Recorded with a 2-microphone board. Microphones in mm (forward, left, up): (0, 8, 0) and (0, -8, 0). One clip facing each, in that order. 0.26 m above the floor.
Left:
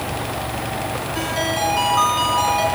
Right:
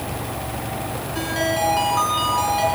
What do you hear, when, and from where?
1.1 s a ringtone: centre (ahead or behind), 2.5 m